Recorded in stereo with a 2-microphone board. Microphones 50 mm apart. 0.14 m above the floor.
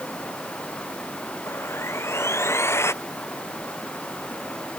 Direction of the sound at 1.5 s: 60° left (ahead or behind).